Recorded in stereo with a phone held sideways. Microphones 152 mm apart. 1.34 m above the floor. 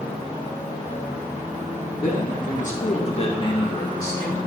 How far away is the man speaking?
About 1.8 m.